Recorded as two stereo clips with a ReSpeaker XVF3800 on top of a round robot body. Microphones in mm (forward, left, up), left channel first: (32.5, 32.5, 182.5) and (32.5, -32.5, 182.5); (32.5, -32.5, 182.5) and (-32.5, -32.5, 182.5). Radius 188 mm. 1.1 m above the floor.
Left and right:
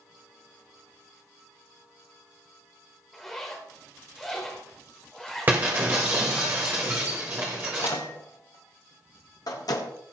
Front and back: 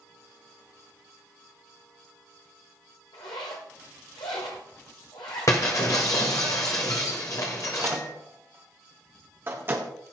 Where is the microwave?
120° left, 1.0 m.